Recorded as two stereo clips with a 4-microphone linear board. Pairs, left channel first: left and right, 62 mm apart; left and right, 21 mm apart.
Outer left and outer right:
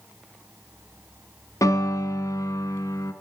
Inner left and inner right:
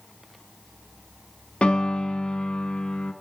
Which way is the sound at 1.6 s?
65° left (ahead or behind).